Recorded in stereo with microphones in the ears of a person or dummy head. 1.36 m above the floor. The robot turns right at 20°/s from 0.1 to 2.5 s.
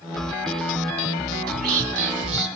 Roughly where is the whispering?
Right.